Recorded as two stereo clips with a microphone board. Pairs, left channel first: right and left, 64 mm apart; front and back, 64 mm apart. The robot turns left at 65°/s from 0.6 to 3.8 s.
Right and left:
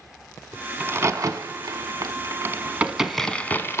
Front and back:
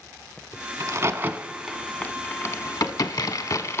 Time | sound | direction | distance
0.8 | a crack | 150° left | 0.6 m